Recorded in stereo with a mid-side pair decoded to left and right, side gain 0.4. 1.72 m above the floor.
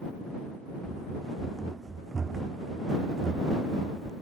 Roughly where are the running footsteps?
Ahead right.